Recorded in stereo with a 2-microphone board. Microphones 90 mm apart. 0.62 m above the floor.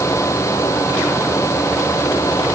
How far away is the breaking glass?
No breaking glass in this recording.